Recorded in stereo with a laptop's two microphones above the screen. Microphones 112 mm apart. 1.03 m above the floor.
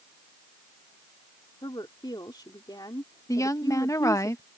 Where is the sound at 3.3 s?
30° left (ahead or behind).